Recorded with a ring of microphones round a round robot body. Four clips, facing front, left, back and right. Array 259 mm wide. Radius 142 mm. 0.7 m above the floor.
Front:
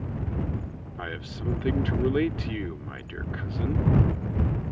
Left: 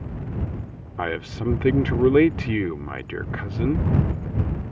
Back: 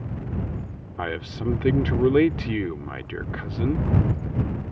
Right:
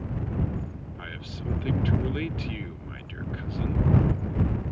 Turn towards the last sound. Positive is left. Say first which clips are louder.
# left 15 dB, back 7 dB
turn(degrees=115)